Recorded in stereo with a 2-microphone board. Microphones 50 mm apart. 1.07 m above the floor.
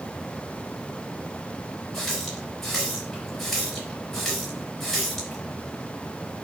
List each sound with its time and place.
1.9 s a running tap: 5° left (ahead or behind), 4 m